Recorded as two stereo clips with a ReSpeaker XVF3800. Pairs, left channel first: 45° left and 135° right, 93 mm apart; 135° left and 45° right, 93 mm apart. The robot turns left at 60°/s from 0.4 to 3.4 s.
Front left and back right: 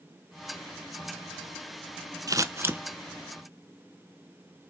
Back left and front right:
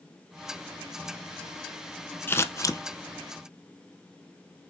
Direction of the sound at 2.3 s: 165° right.